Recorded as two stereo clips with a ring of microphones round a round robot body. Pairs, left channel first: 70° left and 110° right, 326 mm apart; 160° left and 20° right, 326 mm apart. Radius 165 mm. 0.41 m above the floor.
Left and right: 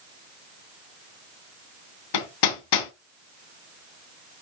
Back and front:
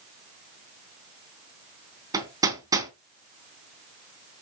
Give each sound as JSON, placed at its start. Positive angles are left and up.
{"t": 2.1, "sound": "hammering", "azimuth_deg": 60, "distance_m": 3.0}